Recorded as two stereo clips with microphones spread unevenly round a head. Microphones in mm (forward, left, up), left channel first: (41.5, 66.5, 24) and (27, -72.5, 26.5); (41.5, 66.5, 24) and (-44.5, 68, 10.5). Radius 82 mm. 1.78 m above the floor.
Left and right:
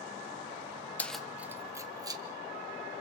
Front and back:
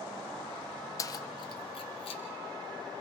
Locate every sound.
1.0 s keys jangling: 10° left, 0.9 m; by 2.2 s 35° right, 1.8 m